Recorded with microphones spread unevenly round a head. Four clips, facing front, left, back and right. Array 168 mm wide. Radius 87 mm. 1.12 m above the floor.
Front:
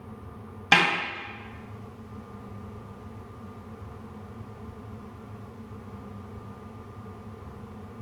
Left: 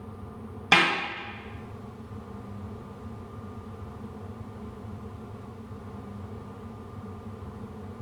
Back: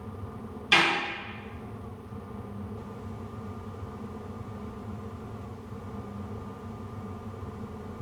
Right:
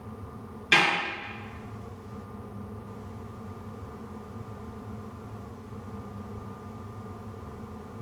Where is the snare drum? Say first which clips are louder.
Left 2 dB, front 2 dB; 45° left, 1.3 m.